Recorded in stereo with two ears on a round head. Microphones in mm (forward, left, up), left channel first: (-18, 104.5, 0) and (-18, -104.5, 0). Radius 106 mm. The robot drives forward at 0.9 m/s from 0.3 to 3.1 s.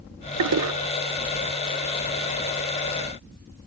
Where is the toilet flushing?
75° right (ahead or behind); by 0.7 s 80° right.